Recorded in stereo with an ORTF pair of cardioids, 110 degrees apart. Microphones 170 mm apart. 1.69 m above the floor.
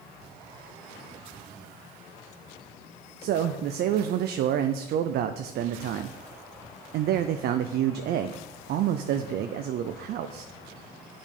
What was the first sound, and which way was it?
A man speaking, 65° right.